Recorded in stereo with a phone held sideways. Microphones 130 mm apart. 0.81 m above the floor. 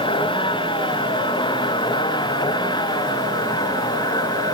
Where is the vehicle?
40° left (ahead or behind); by 4.5 s 30° left (ahead or behind).